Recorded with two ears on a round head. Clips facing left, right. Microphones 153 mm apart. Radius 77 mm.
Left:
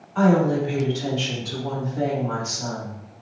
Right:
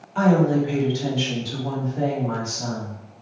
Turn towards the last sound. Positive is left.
turn(degrees=25)  # may be behind; listen again after turning